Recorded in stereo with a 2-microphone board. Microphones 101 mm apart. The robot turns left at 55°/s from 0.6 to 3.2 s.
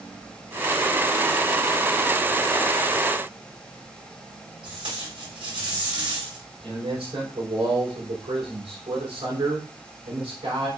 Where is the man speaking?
90° right, 4 m.